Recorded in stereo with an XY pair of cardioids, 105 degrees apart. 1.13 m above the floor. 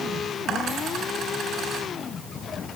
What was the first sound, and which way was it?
A dropped coin, 70° right.